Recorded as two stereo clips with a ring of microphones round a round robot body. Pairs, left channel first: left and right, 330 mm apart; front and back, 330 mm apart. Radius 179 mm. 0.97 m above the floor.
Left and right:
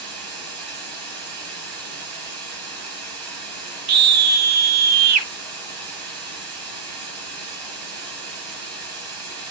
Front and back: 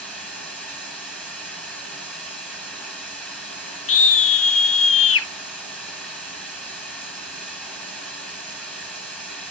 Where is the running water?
85° right, 7 m.